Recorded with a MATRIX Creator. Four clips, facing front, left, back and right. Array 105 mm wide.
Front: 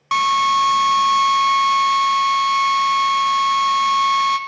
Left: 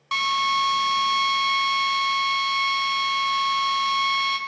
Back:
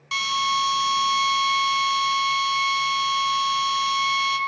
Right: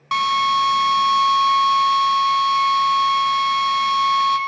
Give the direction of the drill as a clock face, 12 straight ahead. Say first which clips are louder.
Right 5 dB, front 8 dB; 1 o'clock.